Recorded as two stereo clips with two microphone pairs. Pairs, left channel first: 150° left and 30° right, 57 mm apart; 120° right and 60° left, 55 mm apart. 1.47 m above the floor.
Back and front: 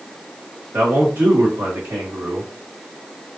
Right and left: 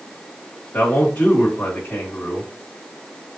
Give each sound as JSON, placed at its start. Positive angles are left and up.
{"t": 0.7, "sound": "a man speaking", "azimuth_deg": -75, "distance_m": 1.7}